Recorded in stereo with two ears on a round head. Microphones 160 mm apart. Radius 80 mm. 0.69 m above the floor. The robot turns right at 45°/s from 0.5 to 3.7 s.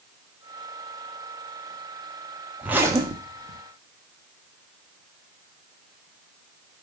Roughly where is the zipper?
Behind.